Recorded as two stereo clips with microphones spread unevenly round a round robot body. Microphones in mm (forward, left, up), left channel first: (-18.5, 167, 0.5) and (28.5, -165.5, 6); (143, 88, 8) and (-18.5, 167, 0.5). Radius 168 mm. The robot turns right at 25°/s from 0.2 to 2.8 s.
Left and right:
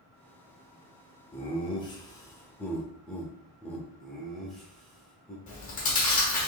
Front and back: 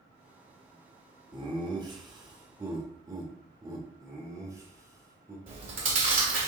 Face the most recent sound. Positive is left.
turn(degrees=160)